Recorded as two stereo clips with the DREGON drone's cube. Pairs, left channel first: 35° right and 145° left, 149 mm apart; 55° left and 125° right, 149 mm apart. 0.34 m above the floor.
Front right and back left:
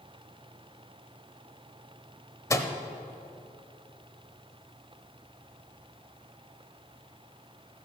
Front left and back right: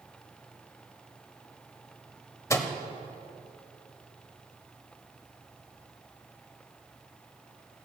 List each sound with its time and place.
2.5 s a microwave: 10° left, 0.7 m